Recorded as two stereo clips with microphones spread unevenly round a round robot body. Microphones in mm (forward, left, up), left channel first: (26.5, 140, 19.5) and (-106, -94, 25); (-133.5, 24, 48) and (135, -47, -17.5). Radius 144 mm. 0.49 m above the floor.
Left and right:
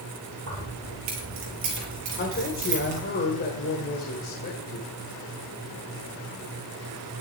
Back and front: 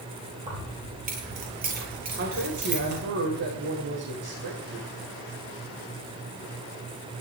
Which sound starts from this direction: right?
Keys jangling, at 0.5 s.